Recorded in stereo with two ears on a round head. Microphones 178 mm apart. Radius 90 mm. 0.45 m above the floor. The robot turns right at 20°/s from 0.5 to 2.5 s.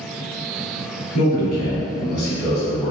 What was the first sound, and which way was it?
A man speaking, 50° left (ahead or behind).